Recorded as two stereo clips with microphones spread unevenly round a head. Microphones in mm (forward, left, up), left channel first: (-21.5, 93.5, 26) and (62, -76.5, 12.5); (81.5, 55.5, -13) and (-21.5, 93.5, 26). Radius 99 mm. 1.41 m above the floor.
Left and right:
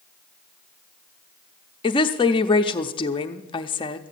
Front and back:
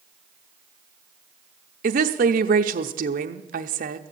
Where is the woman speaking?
175° right, 0.6 m.